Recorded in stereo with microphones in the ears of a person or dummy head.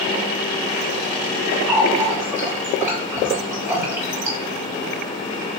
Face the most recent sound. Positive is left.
turn(degrees=-10)  # may be behind; listen again after turning